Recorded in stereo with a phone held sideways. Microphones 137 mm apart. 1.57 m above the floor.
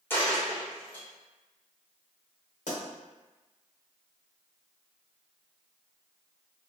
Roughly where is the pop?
Left.